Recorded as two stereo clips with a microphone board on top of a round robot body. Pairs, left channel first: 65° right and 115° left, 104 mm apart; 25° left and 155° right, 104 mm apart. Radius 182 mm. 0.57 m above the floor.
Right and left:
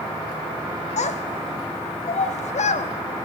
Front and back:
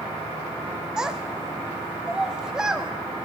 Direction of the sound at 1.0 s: 75° right.